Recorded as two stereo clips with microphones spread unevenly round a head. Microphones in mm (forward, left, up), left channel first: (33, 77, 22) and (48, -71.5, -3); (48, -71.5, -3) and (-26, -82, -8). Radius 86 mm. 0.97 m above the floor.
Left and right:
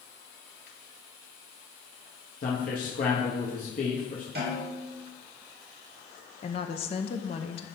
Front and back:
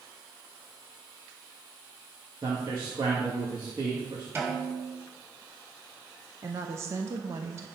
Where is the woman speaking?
145° left, 0.7 m.